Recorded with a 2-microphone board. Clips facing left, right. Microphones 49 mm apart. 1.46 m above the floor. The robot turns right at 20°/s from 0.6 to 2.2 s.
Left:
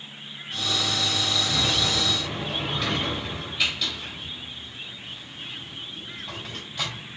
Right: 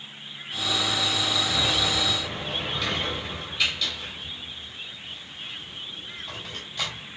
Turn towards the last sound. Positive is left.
turn(degrees=5)  # may be behind; listen again after turning